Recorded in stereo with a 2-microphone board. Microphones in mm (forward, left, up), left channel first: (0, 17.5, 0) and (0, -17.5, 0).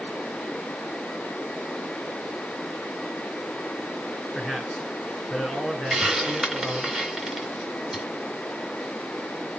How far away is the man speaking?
About 4 m.